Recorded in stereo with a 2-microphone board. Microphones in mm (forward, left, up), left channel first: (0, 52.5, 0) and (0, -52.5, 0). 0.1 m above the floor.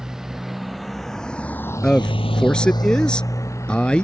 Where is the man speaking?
10° left (ahead or behind).